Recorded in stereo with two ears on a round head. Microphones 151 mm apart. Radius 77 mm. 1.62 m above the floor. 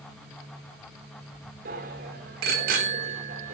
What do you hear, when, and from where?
1.6 s a bicycle bell: 65° right (ahead or behind), 3.5 m